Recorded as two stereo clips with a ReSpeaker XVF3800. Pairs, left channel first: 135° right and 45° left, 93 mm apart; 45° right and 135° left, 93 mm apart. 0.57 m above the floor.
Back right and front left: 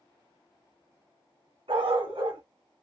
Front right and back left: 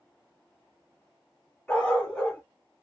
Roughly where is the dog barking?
Ahead left.